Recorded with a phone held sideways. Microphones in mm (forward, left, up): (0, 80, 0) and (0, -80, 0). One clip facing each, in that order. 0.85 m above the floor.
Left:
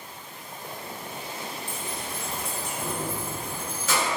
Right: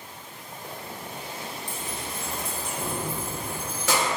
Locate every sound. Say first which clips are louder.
1.7 s keys jangling: even; 10° right (ahead or behind), 0.8 m; by 4.1 s 75° right (ahead or behind), 1.1 m